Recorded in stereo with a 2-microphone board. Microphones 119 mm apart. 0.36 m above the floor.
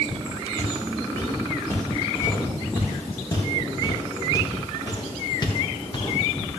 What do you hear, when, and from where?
0.6 s footsteps: 20° left (ahead or behind), 5 m; by 6.2 s 45° left (ahead or behind), 1.7 m